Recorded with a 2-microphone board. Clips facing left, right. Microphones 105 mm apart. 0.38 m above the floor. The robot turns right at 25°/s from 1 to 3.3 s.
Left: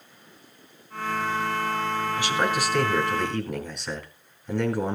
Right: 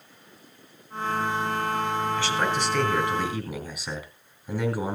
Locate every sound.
2.2 s a man speaking: 15° left (ahead or behind), 2.5 m; by 5.0 s 10° right (ahead or behind), 2.5 m